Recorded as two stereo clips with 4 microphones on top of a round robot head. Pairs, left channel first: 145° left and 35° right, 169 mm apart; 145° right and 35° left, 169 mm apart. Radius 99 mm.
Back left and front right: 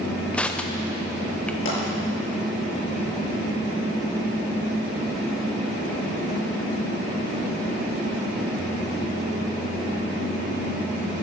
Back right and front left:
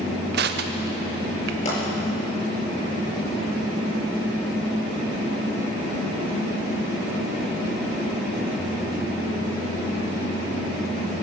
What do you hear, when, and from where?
0.3 s crushing: 65° left, 0.7 m
1.6 s a pop: 160° left, 7 m